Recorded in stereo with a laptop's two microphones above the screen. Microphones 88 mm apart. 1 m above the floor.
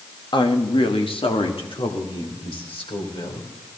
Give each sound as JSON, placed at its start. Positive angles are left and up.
{"t": 0.3, "sound": "a woman speaking", "side_deg": 60, "distance_m": 1.0}